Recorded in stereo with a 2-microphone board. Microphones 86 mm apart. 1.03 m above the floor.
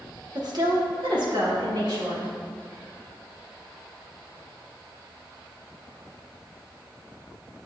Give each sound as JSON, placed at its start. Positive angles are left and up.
{"t": 0.3, "sound": "a woman speaking", "side_deg": -55, "distance_m": 1.2}